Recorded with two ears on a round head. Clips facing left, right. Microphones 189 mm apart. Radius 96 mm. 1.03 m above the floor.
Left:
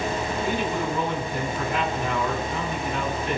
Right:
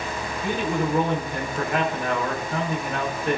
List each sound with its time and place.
0.4 s a man speaking: 50° right (ahead or behind), 5 m